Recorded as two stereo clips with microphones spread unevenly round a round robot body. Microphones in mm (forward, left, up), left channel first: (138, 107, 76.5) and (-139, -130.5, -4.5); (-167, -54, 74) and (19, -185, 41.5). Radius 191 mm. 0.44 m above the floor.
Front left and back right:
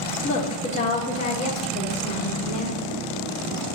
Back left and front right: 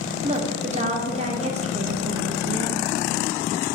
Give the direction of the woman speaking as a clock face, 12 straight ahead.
1 o'clock.